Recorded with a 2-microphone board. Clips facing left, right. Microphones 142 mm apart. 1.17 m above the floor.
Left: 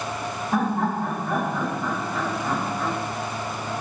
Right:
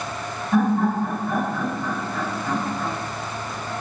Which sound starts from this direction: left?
Laughter, at 0.5 s.